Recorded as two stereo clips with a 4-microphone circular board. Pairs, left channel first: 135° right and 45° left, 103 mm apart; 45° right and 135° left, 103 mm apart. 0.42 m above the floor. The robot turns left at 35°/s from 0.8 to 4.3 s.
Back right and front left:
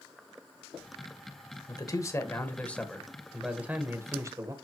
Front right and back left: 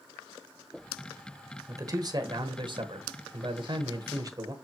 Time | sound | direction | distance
1.7 | a man speaking | 175° right | 1.2 m